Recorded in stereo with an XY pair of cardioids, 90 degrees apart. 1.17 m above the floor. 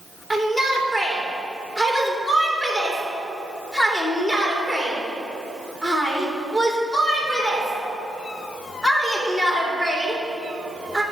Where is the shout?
20° left, 3 m.